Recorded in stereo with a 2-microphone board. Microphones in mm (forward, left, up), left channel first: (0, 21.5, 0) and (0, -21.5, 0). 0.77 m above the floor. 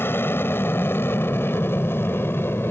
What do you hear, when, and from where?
0.0 s an aircraft: 60° left (ahead or behind); by 2.7 s 65° left (ahead or behind)